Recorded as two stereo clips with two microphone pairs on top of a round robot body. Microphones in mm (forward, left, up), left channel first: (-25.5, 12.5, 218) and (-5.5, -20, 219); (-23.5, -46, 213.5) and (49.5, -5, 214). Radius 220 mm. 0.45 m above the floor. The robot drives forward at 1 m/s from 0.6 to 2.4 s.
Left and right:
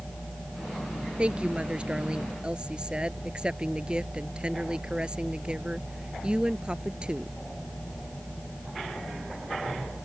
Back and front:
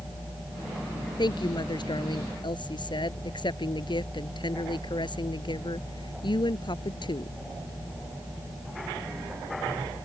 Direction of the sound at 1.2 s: 120° right.